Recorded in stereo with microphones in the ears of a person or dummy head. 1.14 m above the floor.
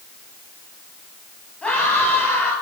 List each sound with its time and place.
1.6 s a scream: centre (ahead or behind), 8 m